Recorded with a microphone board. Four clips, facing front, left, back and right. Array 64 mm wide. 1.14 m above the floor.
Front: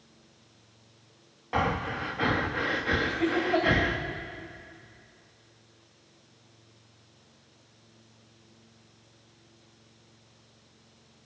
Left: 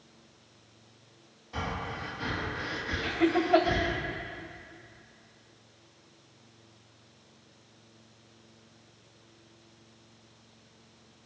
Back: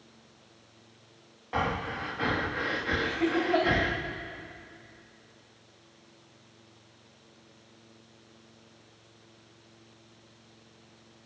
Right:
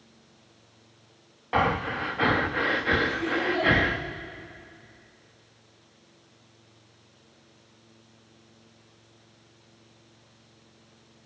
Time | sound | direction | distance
1.5 | breathing | 80° right | 1.0 m
3.0 | laughter | 90° left | 5 m